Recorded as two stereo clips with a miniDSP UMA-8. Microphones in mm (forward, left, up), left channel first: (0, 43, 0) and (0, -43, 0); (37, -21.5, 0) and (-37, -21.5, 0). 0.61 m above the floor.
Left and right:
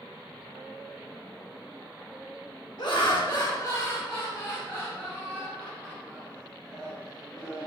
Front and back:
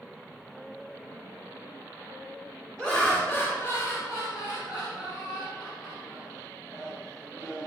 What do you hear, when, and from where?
2.8 s laughter: 85° left, 1.2 m; by 7.7 s 20° right, 4 m